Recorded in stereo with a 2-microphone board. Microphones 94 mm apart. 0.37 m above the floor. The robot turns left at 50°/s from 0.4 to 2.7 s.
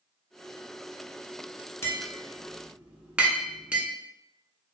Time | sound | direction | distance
1.8 | tapping | 30° left (ahead or behind) | 0.6 m